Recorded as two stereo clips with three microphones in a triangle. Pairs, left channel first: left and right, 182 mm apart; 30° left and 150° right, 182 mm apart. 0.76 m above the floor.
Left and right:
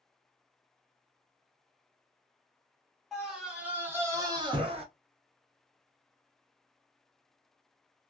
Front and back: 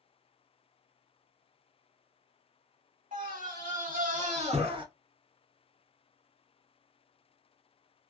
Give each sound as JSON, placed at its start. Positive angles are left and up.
{"t": 3.1, "sound": "a scream", "azimuth_deg": 180, "distance_m": 1.8}